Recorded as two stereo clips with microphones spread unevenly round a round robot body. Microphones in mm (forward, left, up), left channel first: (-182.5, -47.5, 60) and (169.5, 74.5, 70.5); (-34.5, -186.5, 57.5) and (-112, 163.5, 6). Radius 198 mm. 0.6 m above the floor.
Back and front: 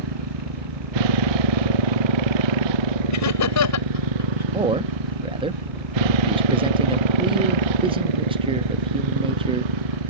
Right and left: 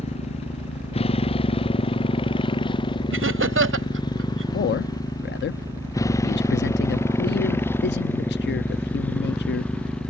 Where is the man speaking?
40° right.